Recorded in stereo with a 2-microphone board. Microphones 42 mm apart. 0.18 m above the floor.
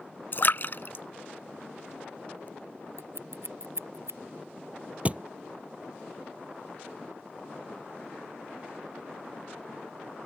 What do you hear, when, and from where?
0.3 s a splash: 50° left (ahead or behind)
3.0 s scissors: 65° right (ahead or behind)
5.0 s a thud: 35° right (ahead or behind)